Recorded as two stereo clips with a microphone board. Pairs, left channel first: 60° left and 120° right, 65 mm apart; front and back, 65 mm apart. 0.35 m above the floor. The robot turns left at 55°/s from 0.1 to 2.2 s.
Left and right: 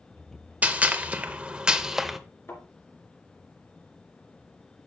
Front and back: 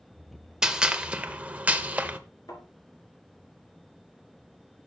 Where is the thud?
10° left, 2.5 m.